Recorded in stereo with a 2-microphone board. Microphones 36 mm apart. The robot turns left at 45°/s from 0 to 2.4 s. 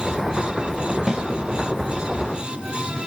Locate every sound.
1.1 s a snare drum: 15° right (ahead or behind), 2.5 m; by 1.2 s 20° right (ahead or behind), 2.5 m